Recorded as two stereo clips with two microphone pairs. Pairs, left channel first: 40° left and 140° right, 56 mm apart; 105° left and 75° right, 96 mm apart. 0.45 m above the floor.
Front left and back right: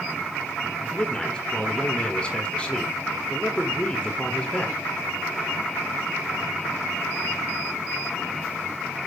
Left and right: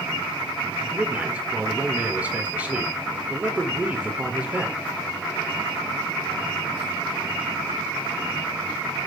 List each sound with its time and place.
0.8 s a man speaking: 10° right, 1.3 m